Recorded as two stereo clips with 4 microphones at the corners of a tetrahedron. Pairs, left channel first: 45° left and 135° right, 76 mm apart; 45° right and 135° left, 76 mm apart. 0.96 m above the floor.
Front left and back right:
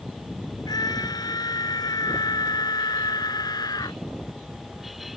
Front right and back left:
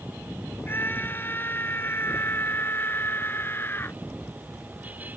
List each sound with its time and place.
0.7 s a scream: 20° left; by 4.0 s 15° left